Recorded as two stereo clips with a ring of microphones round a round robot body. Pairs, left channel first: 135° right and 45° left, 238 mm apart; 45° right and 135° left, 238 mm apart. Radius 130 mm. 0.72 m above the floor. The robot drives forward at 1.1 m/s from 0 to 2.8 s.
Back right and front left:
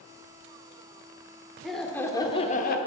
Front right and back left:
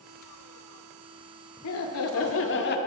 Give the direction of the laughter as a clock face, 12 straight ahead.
1 o'clock.